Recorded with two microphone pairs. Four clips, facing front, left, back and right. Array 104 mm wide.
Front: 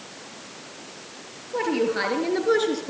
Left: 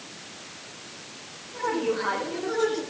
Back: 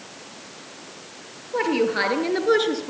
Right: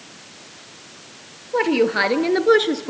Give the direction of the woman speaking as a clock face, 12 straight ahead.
3 o'clock.